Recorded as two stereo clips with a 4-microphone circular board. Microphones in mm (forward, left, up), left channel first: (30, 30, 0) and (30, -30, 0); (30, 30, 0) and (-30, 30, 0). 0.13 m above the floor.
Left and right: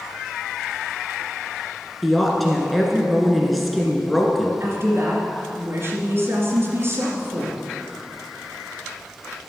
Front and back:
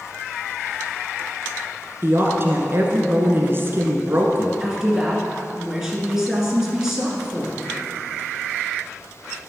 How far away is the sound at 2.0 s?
About 1.5 m.